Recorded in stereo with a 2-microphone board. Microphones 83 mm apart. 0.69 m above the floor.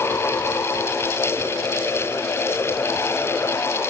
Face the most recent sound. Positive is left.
No sound to turn to.